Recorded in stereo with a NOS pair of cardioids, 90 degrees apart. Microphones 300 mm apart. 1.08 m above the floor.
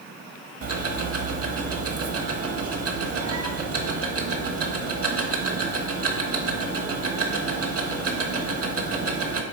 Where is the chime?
No chime in this recording.